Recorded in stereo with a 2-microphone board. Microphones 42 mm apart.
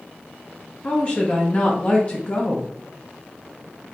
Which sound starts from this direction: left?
A woman speaking, at 0.8 s.